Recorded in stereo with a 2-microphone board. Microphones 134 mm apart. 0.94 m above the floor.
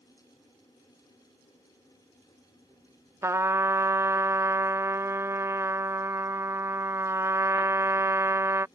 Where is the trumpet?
20° right (ahead or behind).